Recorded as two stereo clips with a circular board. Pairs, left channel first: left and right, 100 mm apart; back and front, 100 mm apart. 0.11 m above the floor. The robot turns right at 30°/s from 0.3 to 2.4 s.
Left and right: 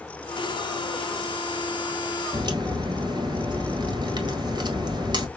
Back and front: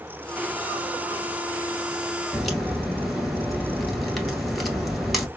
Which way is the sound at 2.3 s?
90° right.